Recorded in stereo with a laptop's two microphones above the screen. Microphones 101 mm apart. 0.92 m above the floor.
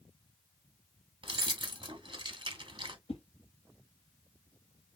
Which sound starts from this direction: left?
A whoosh, at 3.1 s.